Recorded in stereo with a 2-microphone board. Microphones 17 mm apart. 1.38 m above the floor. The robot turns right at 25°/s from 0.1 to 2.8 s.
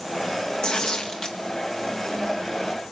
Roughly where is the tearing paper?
Left.